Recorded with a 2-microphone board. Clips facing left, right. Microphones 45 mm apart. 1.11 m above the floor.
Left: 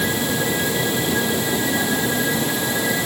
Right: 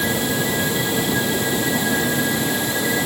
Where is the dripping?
I don't hear dripping.